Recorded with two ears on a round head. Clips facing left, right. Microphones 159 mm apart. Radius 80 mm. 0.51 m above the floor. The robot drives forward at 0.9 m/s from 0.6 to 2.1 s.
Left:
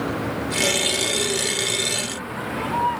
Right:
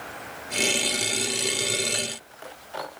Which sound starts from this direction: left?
A vehicle, at 0.0 s.